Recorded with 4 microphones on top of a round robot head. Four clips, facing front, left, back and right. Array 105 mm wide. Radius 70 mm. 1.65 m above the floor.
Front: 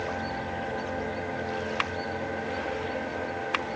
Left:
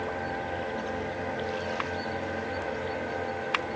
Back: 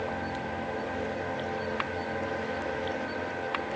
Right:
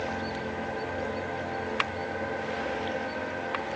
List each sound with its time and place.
Only background noise.